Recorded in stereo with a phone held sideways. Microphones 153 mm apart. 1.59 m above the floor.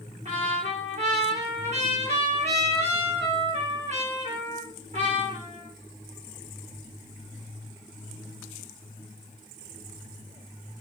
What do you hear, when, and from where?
0.2 s a trumpet: 50° right (ahead or behind), 1.6 m